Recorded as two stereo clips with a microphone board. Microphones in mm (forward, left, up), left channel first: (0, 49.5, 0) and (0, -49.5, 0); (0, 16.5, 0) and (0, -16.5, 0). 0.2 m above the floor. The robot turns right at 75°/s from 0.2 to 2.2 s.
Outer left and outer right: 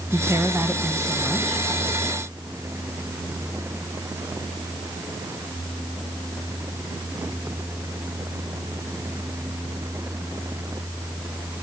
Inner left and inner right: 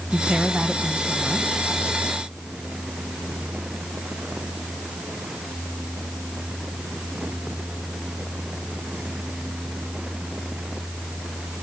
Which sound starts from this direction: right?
A woman speaking, at 0.1 s.